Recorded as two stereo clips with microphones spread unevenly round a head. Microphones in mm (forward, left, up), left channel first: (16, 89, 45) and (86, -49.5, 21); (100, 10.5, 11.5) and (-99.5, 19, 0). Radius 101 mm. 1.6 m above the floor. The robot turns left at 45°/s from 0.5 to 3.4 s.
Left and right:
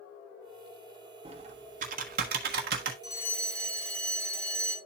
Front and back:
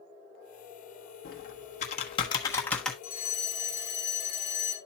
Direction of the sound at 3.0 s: 45° left.